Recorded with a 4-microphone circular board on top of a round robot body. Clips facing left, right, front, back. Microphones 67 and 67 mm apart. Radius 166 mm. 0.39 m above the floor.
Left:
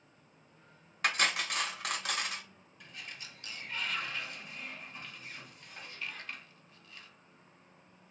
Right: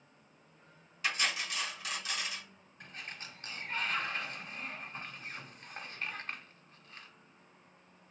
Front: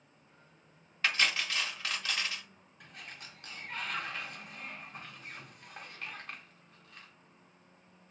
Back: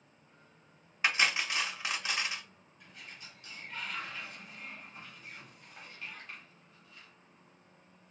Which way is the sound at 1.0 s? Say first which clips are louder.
Left 3 dB, back 1 dB; 110° left.